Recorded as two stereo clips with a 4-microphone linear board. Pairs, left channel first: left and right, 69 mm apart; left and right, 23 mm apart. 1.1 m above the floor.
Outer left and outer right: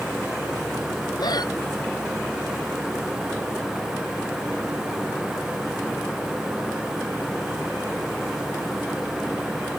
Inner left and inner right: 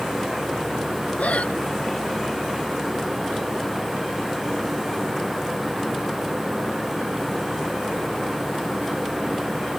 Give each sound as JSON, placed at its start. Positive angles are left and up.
{"t": 1.2, "sound": "breathing", "side_deg": 85}